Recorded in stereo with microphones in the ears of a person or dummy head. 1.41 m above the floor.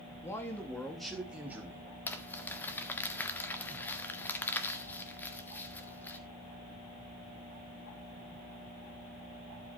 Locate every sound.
0.2 s a man speaking: 15° left (ahead or behind), 3 m; by 1.9 s 15° right (ahead or behind), 4 m
2.1 s crumpling: 10° left (ahead or behind), 1.6 m